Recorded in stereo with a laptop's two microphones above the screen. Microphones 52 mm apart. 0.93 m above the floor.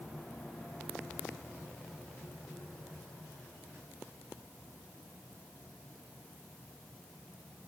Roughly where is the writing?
I don't hear writing.